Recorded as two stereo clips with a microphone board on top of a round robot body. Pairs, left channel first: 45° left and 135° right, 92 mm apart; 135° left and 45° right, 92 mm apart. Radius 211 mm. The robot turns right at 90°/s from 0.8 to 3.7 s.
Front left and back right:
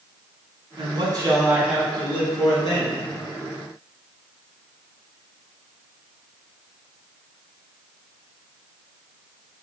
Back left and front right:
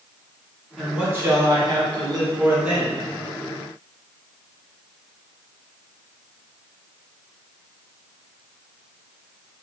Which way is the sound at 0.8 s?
135° right.